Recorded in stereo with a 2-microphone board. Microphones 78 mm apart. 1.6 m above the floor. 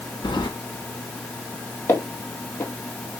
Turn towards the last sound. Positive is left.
turn(degrees=30)  # may be behind; listen again after turning